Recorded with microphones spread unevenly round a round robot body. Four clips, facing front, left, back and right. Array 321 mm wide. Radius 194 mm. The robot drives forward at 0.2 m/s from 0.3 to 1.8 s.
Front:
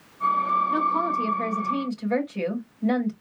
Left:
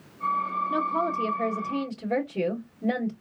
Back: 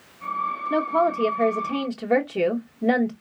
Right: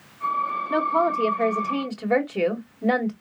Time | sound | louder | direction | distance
0.7 | a woman speaking | right 7 dB, back 2 dB | 135° right | 1.9 m